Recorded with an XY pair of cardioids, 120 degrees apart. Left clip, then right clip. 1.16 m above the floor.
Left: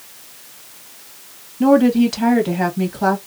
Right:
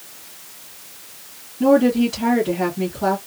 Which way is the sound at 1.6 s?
50° left.